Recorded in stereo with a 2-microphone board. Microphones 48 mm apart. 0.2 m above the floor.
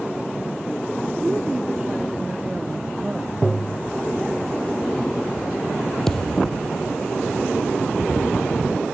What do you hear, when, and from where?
1.2 s a woman speaking: 20° right (ahead or behind)
3.4 s tapping: 5° right (ahead or behind)
6.1 s a thud: 10° left (ahead or behind)